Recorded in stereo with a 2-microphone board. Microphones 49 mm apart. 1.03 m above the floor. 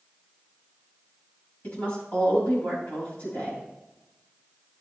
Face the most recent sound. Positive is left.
turn(degrees=30)  # may be behind; listen again after turning